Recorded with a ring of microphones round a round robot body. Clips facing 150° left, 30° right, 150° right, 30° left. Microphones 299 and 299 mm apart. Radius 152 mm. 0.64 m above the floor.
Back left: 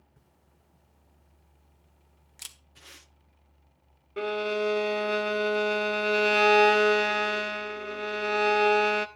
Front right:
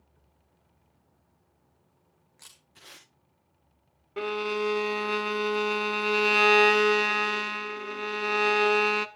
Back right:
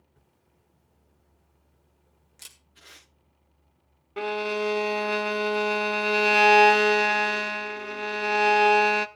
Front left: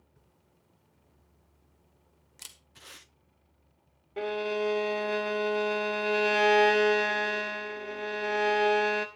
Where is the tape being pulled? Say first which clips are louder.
Front right 1 dB, front left 1 dB; 55° left, 9 m.